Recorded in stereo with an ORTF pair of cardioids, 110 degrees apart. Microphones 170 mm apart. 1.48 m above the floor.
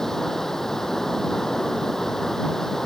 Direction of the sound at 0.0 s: Straight ahead.